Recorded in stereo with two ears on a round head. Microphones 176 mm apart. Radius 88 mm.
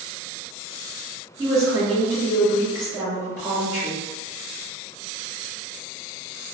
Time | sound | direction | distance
1.4 | a woman speaking | 20° right (ahead or behind) | 1.5 m